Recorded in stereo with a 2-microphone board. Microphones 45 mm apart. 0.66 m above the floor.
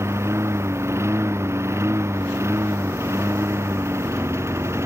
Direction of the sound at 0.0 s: 90° right.